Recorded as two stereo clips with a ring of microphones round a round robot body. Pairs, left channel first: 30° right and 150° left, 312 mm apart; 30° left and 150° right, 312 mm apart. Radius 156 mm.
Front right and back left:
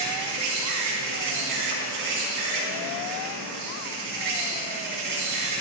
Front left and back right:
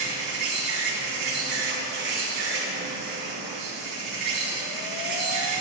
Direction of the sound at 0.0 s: 175° right.